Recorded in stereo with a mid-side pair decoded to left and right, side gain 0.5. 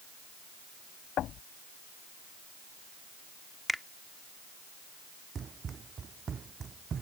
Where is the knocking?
60° left.